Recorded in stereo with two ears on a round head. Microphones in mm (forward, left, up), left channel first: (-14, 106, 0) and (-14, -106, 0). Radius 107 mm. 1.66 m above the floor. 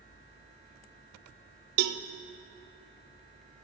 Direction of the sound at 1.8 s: 75° right (ahead or behind).